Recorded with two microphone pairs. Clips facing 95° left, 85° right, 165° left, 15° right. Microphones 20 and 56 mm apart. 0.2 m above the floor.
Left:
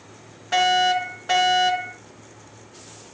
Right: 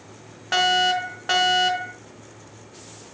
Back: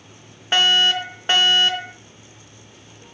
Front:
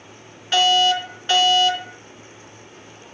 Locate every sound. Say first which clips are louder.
0.5 s a fire alarm: left 1 dB, front 1 dB; 140° right, 4 m